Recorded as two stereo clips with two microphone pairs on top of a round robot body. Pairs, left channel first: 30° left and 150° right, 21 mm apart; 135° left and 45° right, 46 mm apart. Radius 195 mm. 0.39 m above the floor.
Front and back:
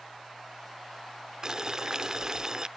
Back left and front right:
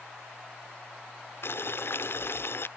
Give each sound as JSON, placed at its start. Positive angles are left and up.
{"t": 1.4, "sound": "boiling", "azimuth_deg": 155}